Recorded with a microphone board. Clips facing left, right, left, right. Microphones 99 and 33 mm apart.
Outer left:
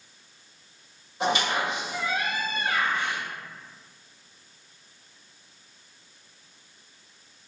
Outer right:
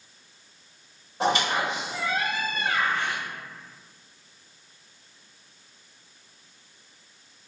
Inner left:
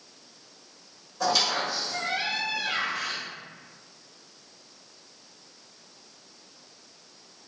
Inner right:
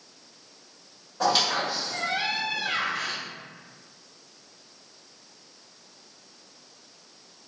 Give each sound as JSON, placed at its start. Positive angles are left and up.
{"t": 1.2, "sound": "a squeak", "side_deg": -35, "distance_m": 1.8}